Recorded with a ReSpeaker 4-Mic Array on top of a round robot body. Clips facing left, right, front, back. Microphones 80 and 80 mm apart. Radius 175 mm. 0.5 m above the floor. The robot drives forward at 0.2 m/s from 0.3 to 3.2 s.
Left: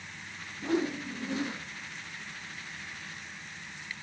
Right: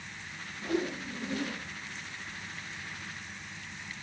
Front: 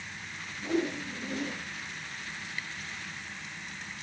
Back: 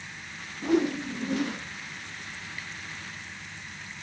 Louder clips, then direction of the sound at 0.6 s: Left 2 dB, back 6 dB; 155° left.